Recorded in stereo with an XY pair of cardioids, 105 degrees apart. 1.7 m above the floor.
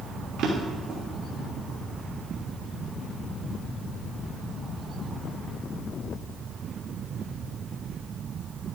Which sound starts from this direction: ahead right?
A drawer, at 0.4 s.